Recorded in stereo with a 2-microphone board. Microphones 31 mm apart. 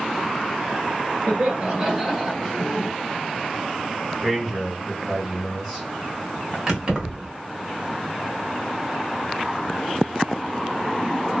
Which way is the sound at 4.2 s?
5° right (ahead or behind).